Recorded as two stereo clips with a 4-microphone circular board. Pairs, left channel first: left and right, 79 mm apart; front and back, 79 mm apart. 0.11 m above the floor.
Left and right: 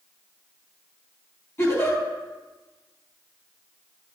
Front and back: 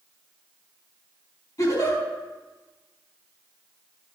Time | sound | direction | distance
1.6 | a giggle | 40° left | 3.5 m